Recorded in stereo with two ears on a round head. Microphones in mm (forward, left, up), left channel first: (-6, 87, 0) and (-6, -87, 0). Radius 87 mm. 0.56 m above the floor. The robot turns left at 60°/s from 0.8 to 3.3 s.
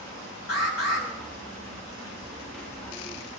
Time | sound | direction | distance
0.5 | an alarm | 50° left (ahead or behind) | 6 m